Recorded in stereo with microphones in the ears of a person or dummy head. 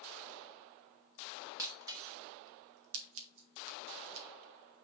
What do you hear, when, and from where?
1.6 s breaking glass: 20° right (ahead or behind), 1.5 m
2.9 s scissors: 75° right (ahead or behind), 2 m